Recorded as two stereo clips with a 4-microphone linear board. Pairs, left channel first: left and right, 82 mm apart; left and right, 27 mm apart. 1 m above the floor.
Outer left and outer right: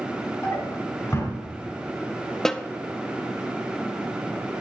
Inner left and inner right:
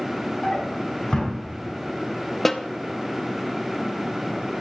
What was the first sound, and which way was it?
A drawer, 40° left (ahead or behind).